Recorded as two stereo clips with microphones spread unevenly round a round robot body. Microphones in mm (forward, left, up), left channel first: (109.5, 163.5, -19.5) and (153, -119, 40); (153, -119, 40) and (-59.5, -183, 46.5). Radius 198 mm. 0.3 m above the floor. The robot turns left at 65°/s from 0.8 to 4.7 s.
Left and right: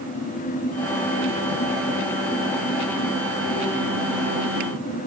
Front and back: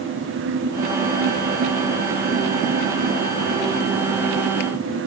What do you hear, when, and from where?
Only background noise.